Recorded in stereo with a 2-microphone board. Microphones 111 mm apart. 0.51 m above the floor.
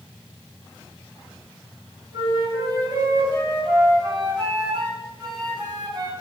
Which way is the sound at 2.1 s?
35° right (ahead or behind).